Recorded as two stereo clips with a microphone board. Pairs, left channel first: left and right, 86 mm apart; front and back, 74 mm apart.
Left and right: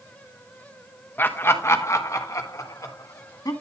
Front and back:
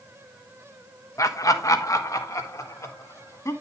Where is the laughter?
25° left, 1.0 m; by 3.5 s 45° left, 2 m.